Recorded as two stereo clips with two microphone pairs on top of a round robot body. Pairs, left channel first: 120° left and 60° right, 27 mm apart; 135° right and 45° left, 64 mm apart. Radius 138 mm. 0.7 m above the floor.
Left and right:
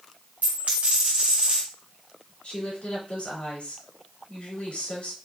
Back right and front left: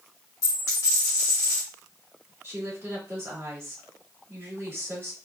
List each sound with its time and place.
0.4 s a dropped coin: 90° right, 1.1 m
2.4 s a woman speaking: 90° left, 2.5 m